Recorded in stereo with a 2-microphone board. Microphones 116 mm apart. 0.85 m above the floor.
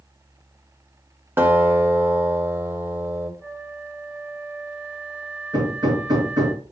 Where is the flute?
10° right (ahead or behind), 5 m.